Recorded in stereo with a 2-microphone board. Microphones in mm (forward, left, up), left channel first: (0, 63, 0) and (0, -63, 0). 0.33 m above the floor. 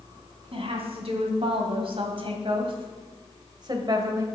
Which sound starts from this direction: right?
A woman speaking, at 0.5 s.